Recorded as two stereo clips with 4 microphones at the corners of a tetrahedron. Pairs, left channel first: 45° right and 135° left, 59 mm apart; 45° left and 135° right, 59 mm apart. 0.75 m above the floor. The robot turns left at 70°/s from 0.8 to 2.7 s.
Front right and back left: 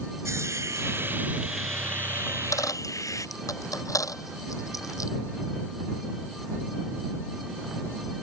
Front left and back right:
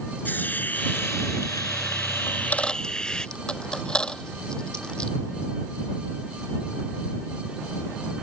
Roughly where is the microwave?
No microwave in this recording.